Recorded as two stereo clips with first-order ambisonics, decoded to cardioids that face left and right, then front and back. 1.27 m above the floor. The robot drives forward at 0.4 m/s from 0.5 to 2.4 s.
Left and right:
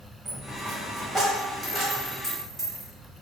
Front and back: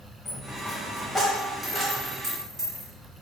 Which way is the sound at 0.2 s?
Straight ahead.